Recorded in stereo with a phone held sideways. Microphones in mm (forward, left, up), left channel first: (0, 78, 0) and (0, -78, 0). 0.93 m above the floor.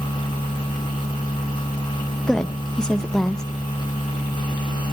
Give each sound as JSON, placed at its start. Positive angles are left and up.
{"t": 0.0, "sound": "a machine running", "side_deg": 30, "distance_m": 3.0}
{"t": 2.3, "sound": "a woman speaking", "side_deg": 5, "distance_m": 0.7}